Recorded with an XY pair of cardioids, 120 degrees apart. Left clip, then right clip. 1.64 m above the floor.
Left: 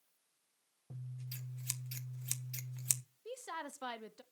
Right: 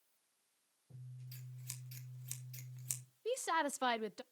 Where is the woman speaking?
45° right, 0.6 m.